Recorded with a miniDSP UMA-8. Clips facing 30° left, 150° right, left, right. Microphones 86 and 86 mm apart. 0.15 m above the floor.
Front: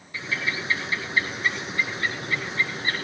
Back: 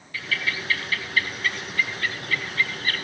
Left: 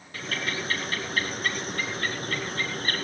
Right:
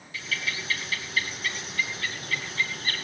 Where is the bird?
90° left, 1.6 m.